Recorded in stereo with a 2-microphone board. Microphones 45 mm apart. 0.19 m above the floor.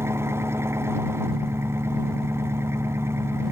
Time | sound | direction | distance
0.0 | an engine running | 75° right (ahead or behind) | ?